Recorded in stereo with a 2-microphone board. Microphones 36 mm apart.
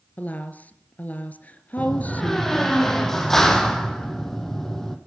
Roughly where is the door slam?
Centre.